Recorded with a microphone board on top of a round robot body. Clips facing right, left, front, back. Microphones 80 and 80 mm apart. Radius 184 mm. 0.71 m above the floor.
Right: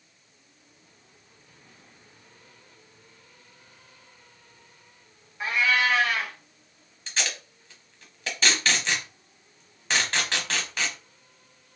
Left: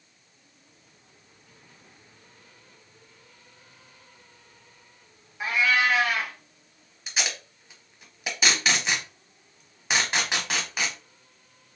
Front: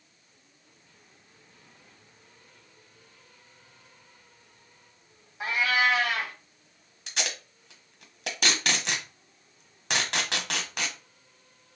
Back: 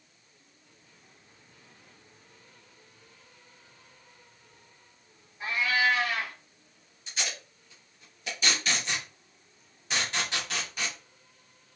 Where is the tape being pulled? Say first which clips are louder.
Even, front 2 dB; 10° left, 1.1 m.